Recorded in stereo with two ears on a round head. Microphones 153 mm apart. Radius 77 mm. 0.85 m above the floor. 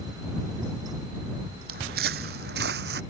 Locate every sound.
1.7 s footsteps: 60° right (ahead or behind); by 3.0 s 70° right (ahead or behind)